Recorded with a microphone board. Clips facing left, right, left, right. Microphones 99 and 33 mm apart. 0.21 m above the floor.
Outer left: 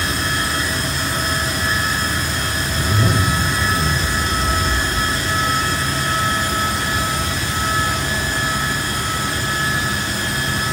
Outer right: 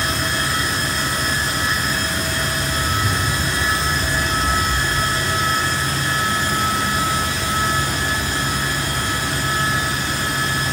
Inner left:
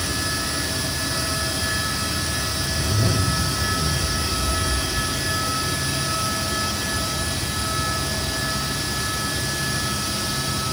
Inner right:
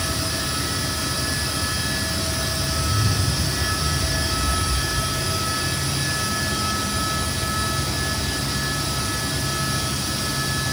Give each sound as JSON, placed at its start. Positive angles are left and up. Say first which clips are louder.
{"t": 2.7, "sound": "a zipper", "louder": "outer left 5 dB, inner left 3 dB", "side_deg": 70, "distance_m": 5.0}